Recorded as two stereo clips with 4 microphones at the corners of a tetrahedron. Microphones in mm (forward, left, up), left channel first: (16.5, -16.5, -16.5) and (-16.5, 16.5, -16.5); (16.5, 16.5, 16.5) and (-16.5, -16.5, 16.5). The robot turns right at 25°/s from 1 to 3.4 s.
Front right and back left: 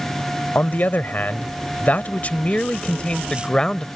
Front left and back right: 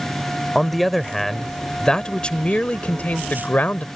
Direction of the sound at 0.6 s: 40° right.